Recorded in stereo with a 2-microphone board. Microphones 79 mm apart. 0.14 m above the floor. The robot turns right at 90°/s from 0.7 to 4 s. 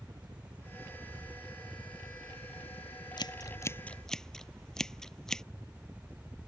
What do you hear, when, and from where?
0.0 s a helicopter: 90° right; by 6.5 s 150° right
3.2 s scissors: 70° left (ahead or behind); by 5.4 s 5° left (ahead or behind)